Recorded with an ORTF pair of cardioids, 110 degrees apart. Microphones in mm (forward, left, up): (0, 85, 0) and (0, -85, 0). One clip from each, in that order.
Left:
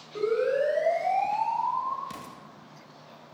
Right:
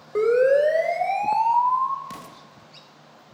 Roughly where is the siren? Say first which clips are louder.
Right 8 dB; ahead right.